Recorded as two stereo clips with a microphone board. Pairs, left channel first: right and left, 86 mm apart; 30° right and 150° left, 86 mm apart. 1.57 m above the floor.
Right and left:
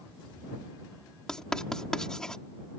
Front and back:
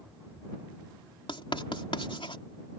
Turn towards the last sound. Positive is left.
turn(degrees=-5)